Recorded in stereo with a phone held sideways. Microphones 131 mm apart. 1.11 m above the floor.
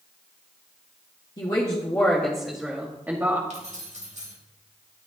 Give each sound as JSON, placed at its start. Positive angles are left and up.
{"t": 1.4, "sound": "a woman speaking", "side_deg": 35, "distance_m": 1.8}
{"t": 3.5, "sound": "keys jangling", "side_deg": -70, "distance_m": 3.5}